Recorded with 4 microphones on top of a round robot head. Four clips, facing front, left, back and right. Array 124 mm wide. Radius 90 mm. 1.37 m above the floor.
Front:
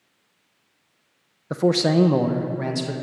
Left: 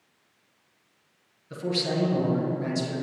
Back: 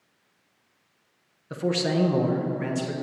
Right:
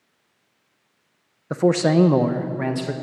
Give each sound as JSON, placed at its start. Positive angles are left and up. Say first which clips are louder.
{"t": 1.5, "sound": "a man speaking", "louder": "right 11 dB, front 6 dB", "azimuth_deg": -55, "distance_m": 0.8}